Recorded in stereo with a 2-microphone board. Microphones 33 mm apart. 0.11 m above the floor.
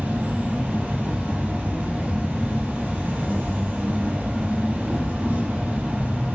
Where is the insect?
60° right (ahead or behind), 1.4 m.